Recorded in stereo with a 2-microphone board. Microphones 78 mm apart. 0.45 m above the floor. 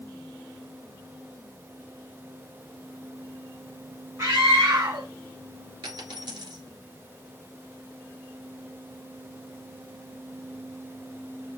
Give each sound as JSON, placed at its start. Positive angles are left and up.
{"t": 4.2, "sound": "a scream", "side_deg": -45, "distance_m": 1.6}
{"t": 5.8, "sound": "a dropped coin", "side_deg": -65, "distance_m": 2.0}